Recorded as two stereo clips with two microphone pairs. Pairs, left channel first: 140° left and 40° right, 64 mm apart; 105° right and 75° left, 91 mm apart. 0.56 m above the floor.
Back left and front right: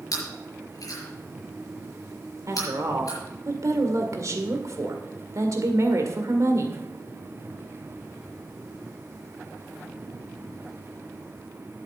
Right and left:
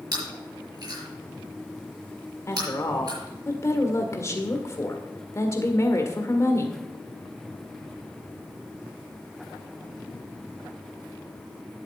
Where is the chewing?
120° left, 6 m.